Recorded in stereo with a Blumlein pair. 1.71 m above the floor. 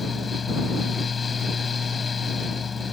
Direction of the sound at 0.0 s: 15° left.